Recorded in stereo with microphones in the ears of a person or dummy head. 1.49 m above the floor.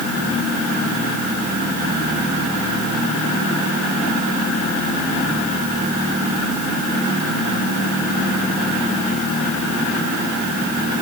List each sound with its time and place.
Only background noise.